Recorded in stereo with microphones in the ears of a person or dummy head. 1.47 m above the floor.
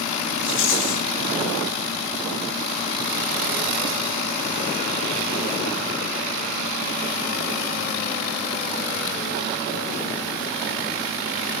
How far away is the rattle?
About 3 m.